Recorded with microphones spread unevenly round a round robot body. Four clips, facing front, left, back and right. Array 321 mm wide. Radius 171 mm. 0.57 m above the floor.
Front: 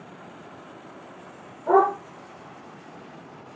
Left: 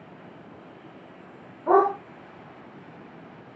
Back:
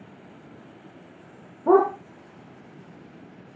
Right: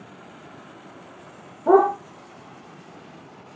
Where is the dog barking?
145° right, 7 m.